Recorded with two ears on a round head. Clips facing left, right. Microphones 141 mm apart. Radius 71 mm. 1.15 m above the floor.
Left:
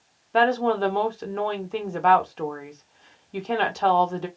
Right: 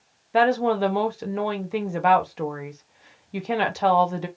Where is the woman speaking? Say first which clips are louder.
Right 1 dB; 10° right (ahead or behind), 0.7 m.